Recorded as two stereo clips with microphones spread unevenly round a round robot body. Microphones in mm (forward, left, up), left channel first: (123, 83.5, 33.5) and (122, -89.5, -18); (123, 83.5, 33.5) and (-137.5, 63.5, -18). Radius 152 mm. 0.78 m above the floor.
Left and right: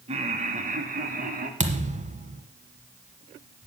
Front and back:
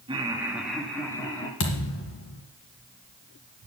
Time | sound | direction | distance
0.1 | laughter | 115° right | 1.4 m
1.6 | a thud | 35° right | 1.7 m